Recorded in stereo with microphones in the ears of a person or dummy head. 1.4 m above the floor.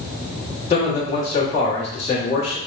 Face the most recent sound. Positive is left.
turn(degrees=40)  # may be behind; listen again after turning